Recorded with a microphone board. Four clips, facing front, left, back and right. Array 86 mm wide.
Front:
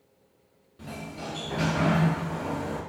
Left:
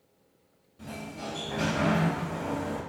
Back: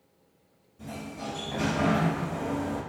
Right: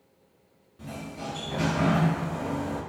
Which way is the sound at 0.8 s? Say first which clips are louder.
Right 1 dB, even; 15° right.